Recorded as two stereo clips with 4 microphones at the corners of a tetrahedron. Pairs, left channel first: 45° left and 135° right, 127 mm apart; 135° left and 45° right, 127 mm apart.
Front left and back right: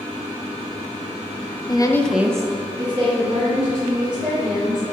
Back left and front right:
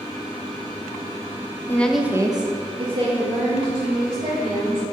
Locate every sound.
1.7 s a woman speaking: 75° left, 0.7 m; by 4.8 s 90° right, 3.5 m